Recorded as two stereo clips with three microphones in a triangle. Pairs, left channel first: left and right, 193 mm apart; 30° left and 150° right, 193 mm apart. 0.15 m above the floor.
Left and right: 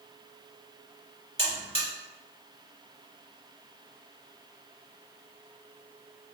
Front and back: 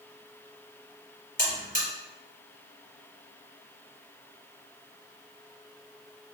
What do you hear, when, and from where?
1.4 s a buzzer: 50° left, 2.0 m